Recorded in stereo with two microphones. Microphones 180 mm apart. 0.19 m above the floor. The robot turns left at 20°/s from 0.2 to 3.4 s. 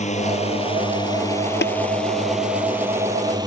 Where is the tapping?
75° left (ahead or behind).